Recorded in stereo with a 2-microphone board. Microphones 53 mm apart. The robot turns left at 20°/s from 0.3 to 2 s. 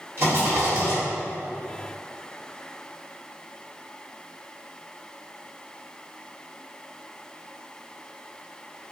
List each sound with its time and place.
0.2 s a rattle: 55° right (ahead or behind), 1.1 m; by 1.0 s 40° right (ahead or behind), 1.1 m